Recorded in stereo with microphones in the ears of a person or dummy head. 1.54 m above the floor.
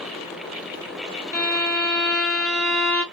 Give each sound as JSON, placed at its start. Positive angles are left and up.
{"t": 1.3, "sound": "a violin", "side_deg": 10, "distance_m": 1.4}